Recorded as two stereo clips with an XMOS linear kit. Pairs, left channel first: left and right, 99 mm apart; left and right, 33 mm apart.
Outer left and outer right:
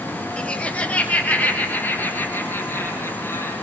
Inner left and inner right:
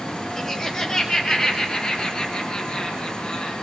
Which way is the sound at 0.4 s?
10° left (ahead or behind).